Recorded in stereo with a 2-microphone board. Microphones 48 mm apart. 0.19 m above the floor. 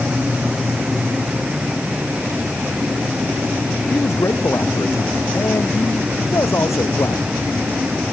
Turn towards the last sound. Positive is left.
turn(degrees=80)